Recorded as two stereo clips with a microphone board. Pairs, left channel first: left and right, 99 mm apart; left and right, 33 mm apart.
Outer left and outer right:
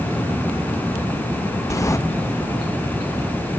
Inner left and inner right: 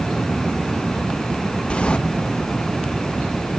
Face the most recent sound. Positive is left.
turn(degrees=30)  # may be behind; listen again after turning